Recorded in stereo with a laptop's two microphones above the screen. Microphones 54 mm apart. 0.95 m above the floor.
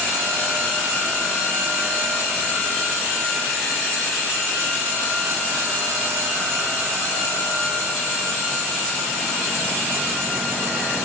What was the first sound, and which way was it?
Only background noise.